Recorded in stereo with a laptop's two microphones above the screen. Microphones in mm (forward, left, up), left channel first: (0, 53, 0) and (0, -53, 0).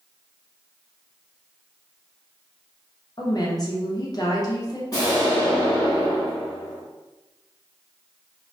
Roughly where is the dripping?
No dripping in this recording.